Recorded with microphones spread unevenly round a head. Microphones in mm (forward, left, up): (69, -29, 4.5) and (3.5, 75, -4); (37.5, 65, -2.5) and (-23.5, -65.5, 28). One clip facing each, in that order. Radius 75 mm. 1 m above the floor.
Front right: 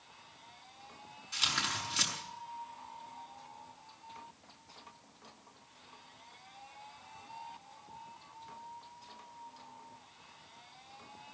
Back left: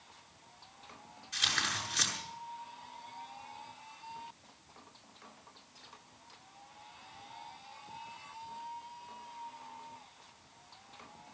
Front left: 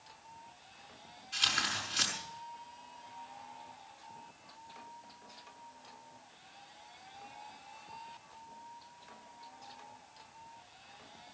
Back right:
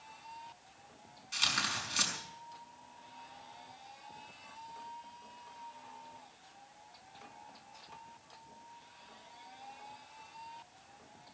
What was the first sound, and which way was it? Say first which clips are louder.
Tearing paper: even, even; 85° right.